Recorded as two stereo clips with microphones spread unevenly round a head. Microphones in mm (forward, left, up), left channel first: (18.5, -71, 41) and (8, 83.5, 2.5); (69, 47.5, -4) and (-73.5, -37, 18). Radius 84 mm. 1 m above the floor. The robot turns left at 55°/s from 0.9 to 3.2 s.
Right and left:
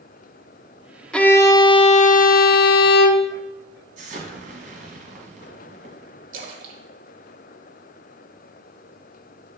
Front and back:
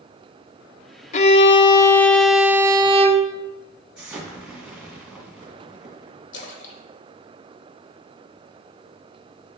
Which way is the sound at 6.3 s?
50° left.